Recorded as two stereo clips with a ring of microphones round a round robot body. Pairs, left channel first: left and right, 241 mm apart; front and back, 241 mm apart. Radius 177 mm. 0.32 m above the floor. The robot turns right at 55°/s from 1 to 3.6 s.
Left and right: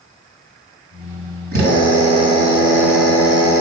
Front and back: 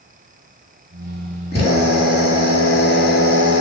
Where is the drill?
80° right, 3.5 m; by 3.6 s 35° left, 3.5 m.